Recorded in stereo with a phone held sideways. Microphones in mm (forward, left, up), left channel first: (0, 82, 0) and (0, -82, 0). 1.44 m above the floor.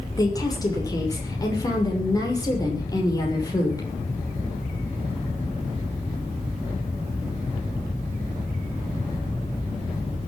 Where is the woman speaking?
25° left (ahead or behind), 6 m.